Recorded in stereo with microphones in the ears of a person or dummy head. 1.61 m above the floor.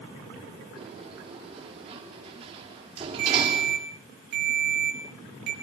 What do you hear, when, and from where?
0.8 s a sliding door: 30° right (ahead or behind), 4 m
3.2 s a ringtone: 55° right (ahead or behind), 6 m